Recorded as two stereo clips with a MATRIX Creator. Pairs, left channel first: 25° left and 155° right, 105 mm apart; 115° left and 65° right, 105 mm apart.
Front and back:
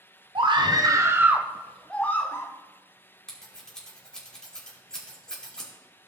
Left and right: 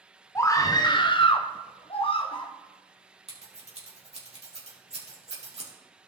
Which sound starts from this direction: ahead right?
Scissors, at 3.3 s.